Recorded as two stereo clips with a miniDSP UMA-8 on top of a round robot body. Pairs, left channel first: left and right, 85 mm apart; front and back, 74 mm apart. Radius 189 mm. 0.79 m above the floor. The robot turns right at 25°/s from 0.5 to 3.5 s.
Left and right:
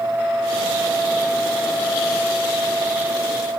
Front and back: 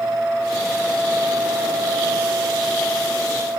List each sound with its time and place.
Only background noise.